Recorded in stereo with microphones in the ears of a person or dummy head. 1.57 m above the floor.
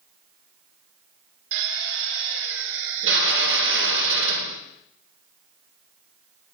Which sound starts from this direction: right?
A drill, at 1.5 s.